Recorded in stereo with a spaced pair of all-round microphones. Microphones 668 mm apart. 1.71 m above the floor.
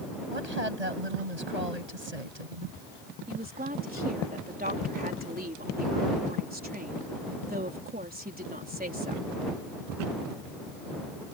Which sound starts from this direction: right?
A woman speaking, at 0.3 s.